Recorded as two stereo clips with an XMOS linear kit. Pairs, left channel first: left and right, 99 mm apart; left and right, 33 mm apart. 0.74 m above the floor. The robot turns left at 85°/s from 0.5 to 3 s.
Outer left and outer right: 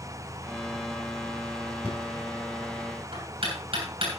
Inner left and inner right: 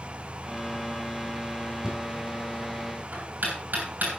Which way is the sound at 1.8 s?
15° right (ahead or behind).